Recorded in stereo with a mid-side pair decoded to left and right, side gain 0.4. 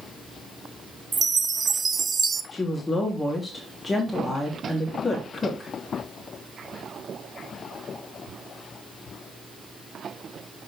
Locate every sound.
1.1 s a chime: 40° right, 0.9 m
2.5 s a woman speaking: 25° left, 3.5 m